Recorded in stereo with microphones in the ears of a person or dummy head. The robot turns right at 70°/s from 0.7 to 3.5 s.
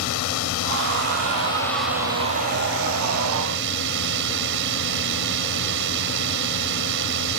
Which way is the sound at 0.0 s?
110° left.